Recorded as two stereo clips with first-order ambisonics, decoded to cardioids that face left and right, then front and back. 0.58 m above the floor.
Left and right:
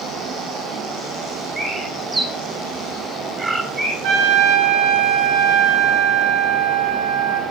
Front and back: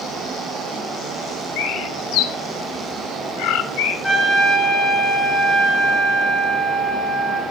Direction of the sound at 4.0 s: 90° right.